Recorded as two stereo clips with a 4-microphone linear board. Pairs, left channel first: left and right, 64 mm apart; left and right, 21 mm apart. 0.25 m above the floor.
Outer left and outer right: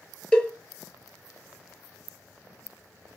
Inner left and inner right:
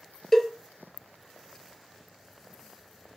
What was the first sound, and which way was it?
A cowbell, 15° left (ahead or behind).